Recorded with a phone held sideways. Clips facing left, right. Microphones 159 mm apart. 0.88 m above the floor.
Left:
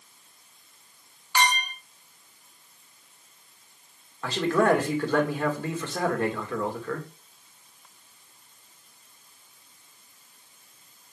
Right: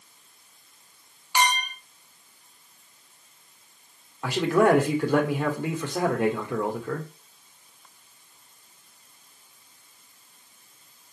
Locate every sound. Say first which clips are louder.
1.4 s a clink: right 1 dB; 15° right (ahead or behind), 1.3 m
4.2 s a man speaking: right 2 dB; 15° right (ahead or behind), 2 m